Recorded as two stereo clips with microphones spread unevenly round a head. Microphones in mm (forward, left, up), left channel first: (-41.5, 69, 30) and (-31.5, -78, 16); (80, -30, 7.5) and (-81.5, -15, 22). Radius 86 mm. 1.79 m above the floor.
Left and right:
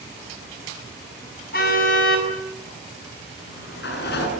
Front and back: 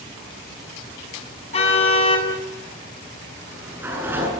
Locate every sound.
1.5 s a car horn: 55° left, 8 m
3.4 s a sliding door: 95° left, 7.5 m